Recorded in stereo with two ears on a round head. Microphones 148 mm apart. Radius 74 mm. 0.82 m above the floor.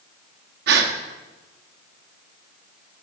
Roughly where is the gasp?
Right.